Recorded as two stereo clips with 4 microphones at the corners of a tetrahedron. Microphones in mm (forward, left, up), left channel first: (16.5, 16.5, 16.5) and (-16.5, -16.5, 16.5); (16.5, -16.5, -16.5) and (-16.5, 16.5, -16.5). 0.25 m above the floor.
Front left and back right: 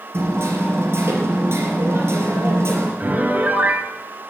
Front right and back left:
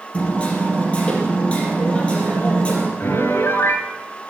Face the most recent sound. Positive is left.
turn(degrees=-80)